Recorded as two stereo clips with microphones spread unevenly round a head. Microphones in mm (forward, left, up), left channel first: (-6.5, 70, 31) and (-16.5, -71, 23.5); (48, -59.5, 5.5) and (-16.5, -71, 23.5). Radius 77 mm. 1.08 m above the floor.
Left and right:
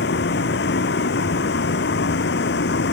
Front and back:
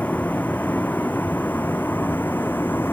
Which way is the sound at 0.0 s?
90° left.